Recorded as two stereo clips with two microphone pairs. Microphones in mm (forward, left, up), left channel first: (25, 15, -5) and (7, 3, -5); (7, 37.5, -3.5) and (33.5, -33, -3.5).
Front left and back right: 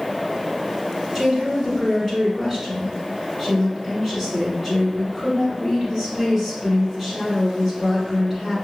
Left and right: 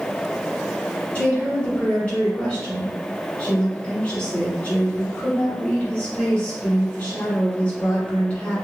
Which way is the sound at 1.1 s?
155° left.